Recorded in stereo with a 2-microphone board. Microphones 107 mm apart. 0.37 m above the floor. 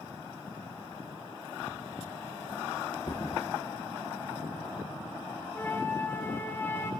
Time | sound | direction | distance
3.1 | a thud | 40° left (ahead or behind) | 3 m
5.5 | a flute | 20° left (ahead or behind) | 2.0 m